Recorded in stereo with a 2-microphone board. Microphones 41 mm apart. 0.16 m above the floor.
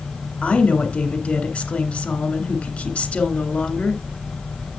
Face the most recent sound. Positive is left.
turn(degrees=25)  # may be behind; listen again after turning